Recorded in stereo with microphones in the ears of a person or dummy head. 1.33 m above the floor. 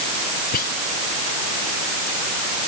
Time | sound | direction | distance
0.5 | whispering | 55° left (ahead or behind) | ?